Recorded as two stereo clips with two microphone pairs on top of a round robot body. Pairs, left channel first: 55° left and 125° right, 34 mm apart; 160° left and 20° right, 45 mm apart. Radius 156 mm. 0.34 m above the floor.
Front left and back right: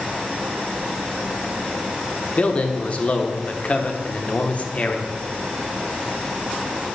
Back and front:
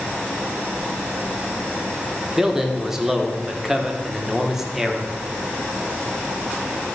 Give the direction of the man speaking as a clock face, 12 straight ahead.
10 o'clock.